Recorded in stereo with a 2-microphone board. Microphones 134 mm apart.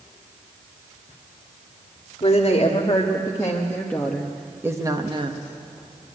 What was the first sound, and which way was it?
A woman speaking, 45° left (ahead or behind).